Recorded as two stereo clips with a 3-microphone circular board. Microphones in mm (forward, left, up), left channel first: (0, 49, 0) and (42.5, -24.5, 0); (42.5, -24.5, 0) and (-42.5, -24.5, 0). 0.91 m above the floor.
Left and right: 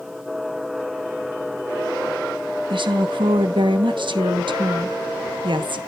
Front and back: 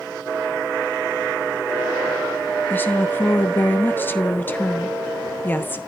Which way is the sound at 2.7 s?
65° right.